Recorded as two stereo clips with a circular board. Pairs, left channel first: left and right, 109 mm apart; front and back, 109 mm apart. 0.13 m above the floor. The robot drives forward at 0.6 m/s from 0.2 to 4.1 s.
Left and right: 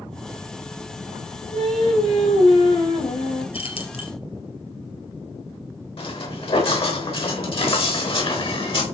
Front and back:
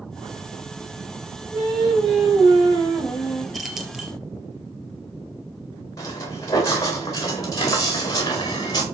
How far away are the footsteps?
About 7 m.